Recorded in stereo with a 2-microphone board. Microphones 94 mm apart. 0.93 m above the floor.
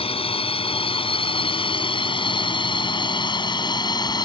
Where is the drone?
70° left (ahead or behind); by 4.2 s 45° left (ahead or behind).